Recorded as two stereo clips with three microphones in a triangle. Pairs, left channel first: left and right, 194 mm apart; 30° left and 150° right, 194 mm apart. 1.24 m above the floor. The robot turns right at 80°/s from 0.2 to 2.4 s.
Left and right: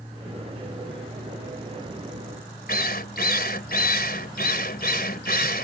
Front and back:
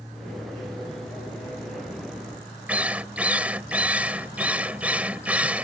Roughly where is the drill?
Behind left.